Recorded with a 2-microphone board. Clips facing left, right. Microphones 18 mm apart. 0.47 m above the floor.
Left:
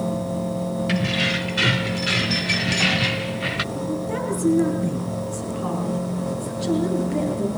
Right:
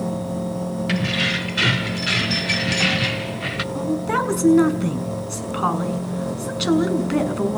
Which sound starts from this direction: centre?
Keys jangling, at 0.9 s.